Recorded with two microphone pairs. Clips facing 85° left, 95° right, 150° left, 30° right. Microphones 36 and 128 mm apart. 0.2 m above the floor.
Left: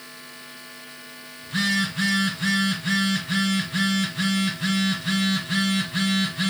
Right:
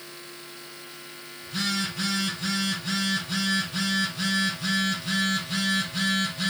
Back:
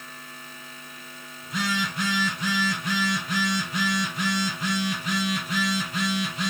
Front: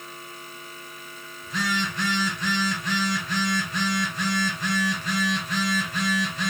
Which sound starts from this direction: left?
A phone buzzing, at 1.4 s.